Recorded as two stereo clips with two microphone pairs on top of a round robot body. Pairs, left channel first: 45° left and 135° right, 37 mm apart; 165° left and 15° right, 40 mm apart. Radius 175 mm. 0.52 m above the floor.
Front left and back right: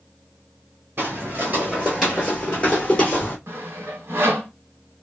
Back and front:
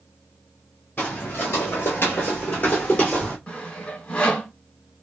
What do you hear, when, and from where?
1.0 s footsteps: 140° right, 0.7 m; by 3.4 s 95° left, 0.9 m
3.5 s sawing: 130° right, 0.8 m